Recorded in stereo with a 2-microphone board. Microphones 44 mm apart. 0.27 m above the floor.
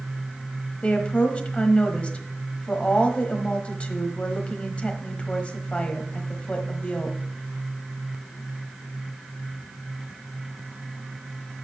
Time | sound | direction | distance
0.8 | a woman speaking | 25° left (ahead or behind) | 1.2 m